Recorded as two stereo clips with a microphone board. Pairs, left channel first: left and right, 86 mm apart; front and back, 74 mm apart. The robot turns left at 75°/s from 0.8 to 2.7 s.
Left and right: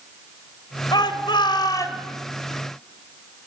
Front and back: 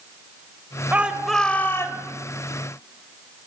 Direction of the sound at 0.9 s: 115° left.